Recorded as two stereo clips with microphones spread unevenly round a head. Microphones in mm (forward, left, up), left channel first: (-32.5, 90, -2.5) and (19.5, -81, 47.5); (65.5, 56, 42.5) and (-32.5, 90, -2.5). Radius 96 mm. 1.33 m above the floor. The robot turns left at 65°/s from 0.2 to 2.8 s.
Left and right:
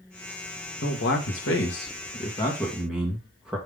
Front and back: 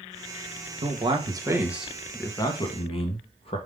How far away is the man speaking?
About 1.9 m.